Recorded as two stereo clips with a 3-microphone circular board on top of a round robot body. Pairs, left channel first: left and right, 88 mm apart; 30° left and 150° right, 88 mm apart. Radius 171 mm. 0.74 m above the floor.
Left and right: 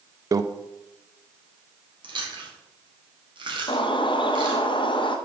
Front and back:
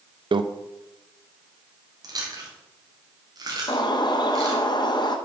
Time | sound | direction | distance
0.3 | a microwave | 135° right | 0.6 m
2.0 | chewing | 110° right | 2.5 m
3.7 | a bird | 65° left | 1.0 m